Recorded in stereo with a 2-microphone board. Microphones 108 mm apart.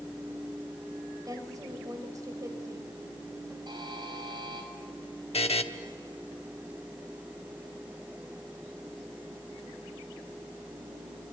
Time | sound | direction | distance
1.2 | a woman speaking | 35° right (ahead or behind) | 3 m
3.7 | a buzzer | 45° right (ahead or behind) | 5 m
5.3 | a buzzer | 75° left (ahead or behind) | 1.1 m